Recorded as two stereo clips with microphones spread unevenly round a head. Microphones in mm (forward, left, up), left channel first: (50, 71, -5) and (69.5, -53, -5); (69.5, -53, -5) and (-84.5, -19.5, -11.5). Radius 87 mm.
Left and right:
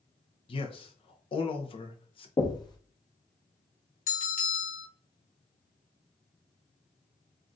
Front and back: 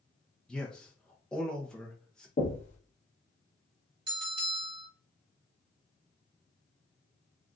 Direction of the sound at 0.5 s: 75° left.